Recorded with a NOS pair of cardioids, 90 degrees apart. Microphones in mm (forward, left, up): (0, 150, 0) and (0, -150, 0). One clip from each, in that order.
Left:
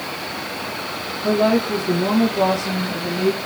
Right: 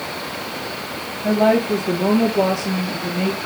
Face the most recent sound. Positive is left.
turn(degrees=-20)